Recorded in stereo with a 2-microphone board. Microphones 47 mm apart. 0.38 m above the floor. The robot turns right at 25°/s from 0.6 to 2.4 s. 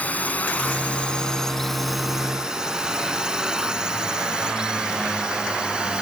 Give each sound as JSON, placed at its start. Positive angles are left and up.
{"t": 0.0, "sound": "a drone", "side_deg": 35}